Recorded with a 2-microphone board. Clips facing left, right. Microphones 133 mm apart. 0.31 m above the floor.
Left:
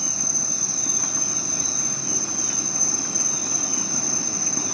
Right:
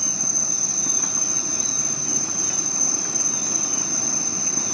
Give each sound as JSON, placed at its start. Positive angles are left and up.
{"t": 0.0, "sound": "an insect", "side_deg": 10, "distance_m": 1.4}